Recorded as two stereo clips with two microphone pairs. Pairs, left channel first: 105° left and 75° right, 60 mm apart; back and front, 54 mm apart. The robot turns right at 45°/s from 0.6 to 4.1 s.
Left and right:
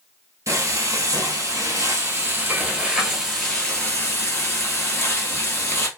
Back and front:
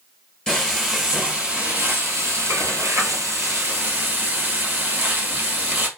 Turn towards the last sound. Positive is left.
turn(degrees=50)